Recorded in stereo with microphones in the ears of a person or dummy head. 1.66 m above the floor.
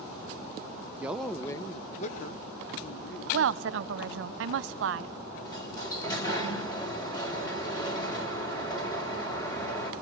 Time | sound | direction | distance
1.0 | a man speaking | 15° right (ahead or behind) | 1.1 m
3.3 | a woman speaking | 80° right | 1.1 m
5.5 | a sliding door | 25° left (ahead or behind) | 5 m